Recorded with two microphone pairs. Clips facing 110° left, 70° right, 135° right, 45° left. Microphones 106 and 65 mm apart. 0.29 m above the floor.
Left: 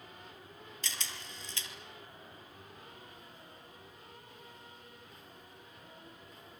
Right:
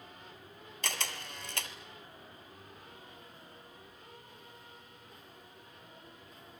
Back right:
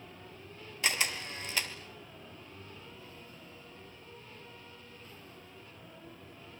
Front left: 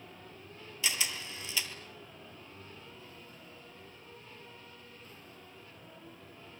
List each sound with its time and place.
0.8 s a camera shutter: 95° right, 1.9 m